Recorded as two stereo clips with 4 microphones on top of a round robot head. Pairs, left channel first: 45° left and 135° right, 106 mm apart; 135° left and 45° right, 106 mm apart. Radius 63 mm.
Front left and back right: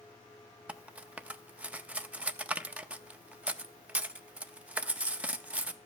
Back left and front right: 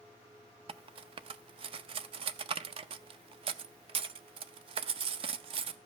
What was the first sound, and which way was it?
Cutlery clinking, 60° right.